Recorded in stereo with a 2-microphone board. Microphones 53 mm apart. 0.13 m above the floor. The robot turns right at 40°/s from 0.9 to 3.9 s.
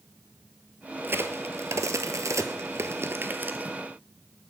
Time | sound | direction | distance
1.0 | a crack | 40° right (ahead or behind) | 0.6 m